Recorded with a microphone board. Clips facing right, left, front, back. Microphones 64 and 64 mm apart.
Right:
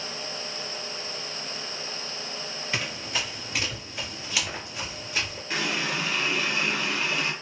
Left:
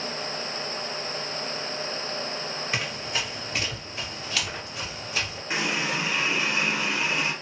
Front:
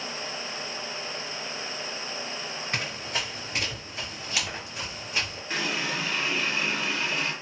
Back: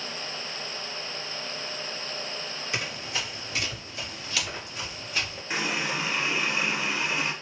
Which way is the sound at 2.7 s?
10° left.